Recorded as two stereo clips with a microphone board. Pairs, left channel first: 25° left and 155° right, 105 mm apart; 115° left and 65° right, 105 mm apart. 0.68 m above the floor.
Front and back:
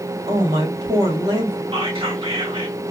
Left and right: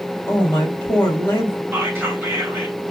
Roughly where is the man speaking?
Behind.